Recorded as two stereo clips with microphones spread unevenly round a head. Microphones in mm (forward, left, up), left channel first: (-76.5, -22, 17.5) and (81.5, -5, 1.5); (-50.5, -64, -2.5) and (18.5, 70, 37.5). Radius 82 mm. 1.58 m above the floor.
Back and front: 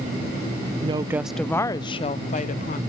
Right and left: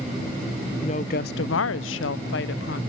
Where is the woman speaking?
50° right, 0.6 m; by 2.8 s 135° right, 1.1 m.